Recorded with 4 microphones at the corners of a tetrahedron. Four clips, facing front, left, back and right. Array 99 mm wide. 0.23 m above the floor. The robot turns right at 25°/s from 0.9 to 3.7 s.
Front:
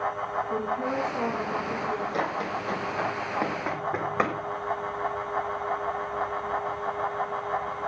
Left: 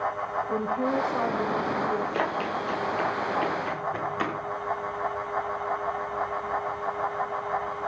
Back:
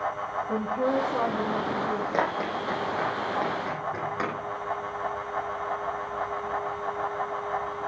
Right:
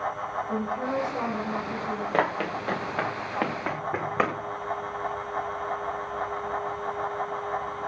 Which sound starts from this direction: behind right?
Running footsteps, at 2.1 s.